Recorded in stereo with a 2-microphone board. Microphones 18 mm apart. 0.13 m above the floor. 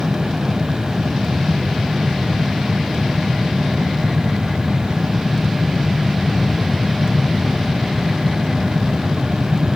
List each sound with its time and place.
Only background noise.